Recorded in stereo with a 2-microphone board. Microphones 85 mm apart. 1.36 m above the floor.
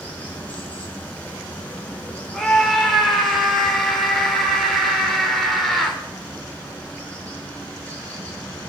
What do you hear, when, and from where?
0.0 s running water: 20° left (ahead or behind), 4.5 m
2.3 s a scream: 5° left (ahead or behind), 3.5 m